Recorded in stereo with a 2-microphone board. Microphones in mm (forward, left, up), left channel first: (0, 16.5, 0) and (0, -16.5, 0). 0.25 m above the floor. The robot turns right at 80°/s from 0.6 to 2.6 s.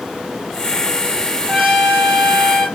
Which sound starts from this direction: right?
A trumpet, at 1.5 s.